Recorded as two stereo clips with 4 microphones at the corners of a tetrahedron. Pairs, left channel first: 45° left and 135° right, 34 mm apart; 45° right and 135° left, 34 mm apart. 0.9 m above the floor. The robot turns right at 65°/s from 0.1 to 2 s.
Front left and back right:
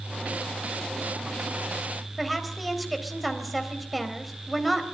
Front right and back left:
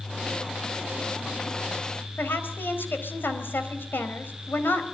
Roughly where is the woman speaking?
Ahead right.